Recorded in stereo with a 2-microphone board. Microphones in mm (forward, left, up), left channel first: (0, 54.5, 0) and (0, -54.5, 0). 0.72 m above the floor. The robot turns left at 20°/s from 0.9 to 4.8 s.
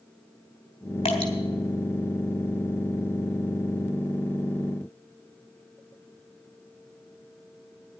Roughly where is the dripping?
Left.